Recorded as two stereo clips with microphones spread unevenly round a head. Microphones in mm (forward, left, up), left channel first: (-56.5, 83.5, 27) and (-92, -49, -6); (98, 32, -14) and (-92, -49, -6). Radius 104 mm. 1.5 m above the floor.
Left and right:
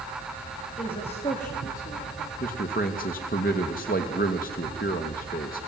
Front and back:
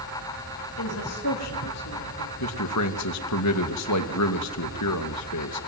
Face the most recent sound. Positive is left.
turn(degrees=20)